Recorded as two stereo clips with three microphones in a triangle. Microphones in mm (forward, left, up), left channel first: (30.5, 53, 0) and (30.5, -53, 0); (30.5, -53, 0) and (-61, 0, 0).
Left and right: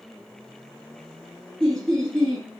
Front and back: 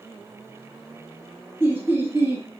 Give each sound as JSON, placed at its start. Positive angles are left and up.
{"t": 1.6, "sound": "laughter", "azimuth_deg": 165, "distance_m": 1.4}